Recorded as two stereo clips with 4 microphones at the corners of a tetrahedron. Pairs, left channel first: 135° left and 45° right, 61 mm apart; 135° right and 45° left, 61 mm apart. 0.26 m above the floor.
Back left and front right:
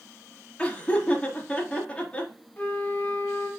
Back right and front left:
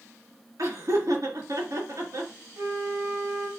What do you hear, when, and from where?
0.6 s laughter: 65° left, 4.5 m
2.6 s a flute: 75° left, 2.5 m